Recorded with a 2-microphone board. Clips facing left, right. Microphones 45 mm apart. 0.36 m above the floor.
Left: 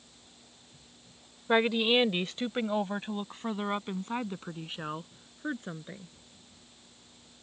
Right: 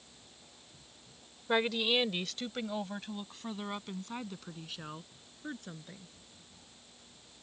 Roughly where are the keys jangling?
No keys jangling in this recording.